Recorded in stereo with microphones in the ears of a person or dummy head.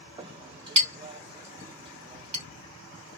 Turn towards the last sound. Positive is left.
turn(degrees=-25)  # may be behind; listen again after turning